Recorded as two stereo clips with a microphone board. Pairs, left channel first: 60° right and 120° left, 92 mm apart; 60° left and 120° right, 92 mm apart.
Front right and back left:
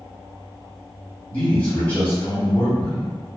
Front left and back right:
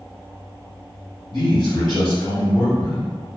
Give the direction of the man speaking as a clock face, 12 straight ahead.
1 o'clock.